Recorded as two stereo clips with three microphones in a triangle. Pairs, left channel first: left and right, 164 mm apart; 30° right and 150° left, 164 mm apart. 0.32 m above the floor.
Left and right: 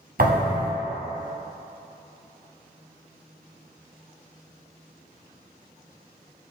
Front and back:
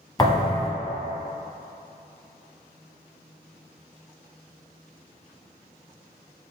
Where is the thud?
95° right, 1.0 m.